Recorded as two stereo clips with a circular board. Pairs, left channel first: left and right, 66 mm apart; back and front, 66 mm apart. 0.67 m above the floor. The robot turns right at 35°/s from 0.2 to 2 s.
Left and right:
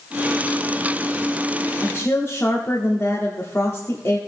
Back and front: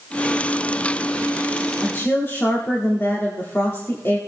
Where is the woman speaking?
125° left, 1.4 m; by 4.2 s 135° left, 1.4 m.